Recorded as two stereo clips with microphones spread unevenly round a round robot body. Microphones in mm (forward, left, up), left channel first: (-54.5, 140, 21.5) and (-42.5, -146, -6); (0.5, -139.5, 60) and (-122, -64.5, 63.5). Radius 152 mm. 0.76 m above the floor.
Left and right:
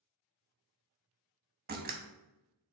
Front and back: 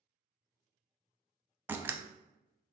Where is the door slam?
135° right, 0.7 m.